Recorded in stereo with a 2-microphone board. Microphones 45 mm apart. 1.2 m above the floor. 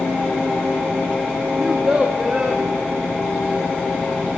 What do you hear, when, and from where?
1.6 s a child speaking: 20° right (ahead or behind), 1.2 m